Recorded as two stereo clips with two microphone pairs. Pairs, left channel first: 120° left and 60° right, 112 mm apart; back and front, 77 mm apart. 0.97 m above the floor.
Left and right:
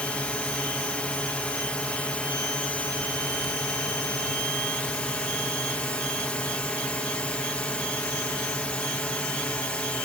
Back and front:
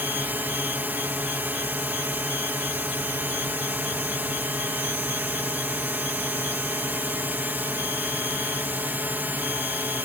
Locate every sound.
0.0 s a drone: 45° left